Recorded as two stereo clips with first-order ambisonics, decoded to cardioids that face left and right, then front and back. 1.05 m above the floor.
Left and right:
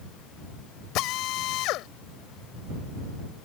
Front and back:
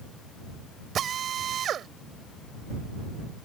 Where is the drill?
120° left.